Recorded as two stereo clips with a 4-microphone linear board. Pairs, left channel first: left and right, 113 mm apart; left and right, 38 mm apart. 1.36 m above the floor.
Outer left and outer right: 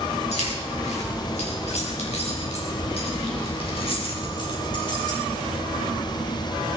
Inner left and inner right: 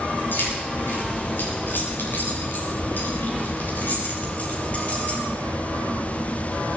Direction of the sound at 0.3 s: 85° left.